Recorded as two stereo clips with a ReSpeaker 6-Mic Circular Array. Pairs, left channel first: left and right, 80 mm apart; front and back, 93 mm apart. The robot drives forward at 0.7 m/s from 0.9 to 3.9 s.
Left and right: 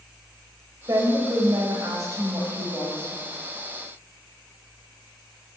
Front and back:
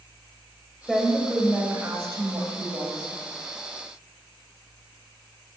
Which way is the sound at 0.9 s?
90° right.